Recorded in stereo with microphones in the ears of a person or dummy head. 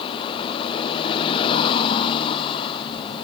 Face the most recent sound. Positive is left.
turn(degrees=25)  # may be behind; listen again after turning